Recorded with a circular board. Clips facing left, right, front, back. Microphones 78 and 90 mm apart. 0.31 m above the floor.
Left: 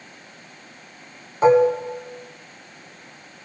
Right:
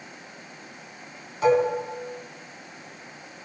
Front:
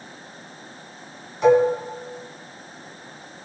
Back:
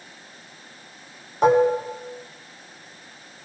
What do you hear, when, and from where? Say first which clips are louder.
1.4 s dishes clattering: left 6 dB, front 1 dB; 140° left, 1.9 m